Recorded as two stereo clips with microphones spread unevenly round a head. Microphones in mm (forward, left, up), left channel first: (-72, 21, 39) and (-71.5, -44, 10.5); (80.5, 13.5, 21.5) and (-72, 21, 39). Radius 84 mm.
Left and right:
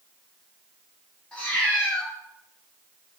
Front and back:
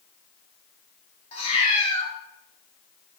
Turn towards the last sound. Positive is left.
turn(degrees=45)